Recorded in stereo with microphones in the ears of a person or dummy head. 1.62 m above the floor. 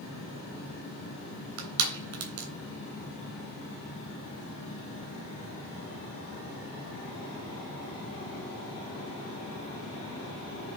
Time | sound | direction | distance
1.6 | crushing | 65° right (ahead or behind) | 3 m